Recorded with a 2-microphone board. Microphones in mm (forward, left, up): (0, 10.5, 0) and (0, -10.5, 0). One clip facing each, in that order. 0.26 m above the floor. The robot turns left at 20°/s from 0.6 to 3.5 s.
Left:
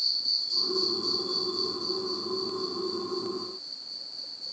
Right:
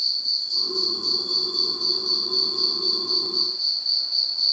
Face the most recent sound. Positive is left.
turn(degrees=-80)